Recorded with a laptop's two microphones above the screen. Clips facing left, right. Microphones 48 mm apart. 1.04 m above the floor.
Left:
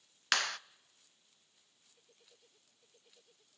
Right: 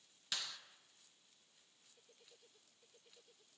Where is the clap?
70° left (ahead or behind), 0.5 m.